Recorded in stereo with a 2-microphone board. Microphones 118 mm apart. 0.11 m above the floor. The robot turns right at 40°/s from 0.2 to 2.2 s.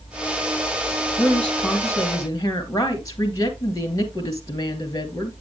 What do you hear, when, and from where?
1.2 s a woman speaking: straight ahead, 2.5 m; by 5.3 s 40° left, 2.5 m